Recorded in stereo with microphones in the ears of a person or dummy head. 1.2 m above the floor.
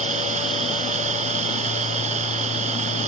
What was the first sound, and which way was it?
An engine running, 40° right (ahead or behind).